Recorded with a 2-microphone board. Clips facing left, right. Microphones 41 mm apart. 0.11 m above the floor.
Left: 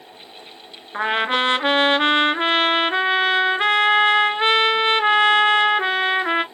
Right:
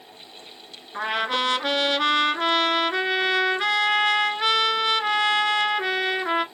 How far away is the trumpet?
About 0.5 m.